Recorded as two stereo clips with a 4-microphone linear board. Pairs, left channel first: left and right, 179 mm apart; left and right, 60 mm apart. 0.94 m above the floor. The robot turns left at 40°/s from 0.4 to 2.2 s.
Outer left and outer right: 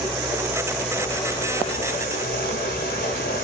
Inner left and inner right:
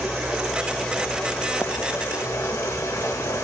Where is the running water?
165° right, 0.8 m; by 3.4 s 125° left, 0.8 m.